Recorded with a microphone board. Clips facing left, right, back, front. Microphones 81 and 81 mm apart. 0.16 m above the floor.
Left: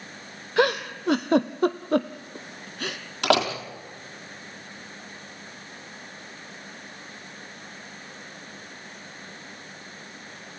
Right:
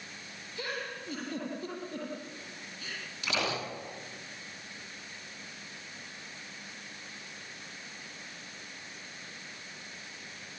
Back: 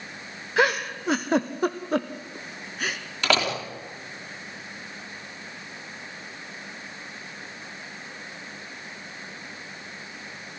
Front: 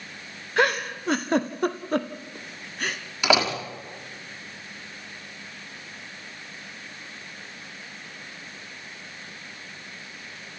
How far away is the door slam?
About 4 m.